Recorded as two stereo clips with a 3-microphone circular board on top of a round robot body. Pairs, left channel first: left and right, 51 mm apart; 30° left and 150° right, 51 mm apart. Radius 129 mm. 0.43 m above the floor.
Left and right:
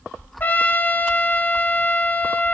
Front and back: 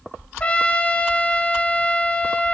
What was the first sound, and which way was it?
A trumpet, 75° left.